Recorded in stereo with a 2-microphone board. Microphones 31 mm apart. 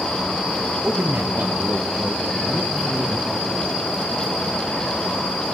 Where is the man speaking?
80° right, 0.8 m; by 3.8 s 25° right (ahead or behind), 2.5 m.